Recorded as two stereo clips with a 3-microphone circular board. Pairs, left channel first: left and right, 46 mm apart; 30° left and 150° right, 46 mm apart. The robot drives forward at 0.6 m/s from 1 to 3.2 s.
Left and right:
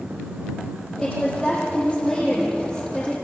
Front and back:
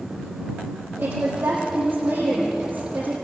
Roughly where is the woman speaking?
Behind.